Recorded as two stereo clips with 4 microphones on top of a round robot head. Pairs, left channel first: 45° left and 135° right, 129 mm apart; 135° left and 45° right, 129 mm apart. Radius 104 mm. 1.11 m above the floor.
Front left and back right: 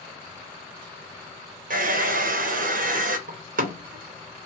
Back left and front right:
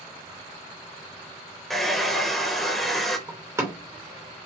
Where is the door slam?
115° right, 0.8 m.